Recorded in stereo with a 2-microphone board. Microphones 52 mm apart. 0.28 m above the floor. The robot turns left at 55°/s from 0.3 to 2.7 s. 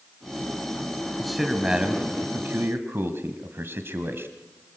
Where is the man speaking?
5° left, 1.5 m; by 4.3 s 80° right, 1.5 m.